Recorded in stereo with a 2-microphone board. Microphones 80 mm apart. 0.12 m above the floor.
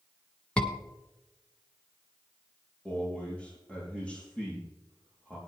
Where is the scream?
15° left (ahead or behind), 1.5 m.